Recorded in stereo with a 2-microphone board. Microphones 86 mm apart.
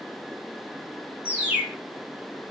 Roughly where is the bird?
Centre.